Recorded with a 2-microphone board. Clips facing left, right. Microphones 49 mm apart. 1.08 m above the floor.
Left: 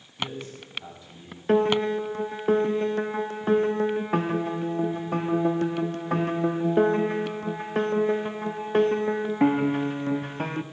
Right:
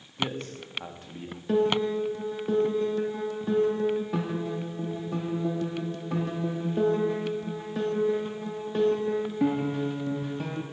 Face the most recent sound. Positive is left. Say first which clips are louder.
# left 3 dB
turn(degrees=50)  # may be behind; listen again after turning